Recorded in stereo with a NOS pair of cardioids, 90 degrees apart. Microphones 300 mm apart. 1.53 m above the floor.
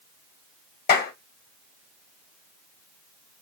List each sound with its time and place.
0.9 s a clap: 35° left, 1.0 m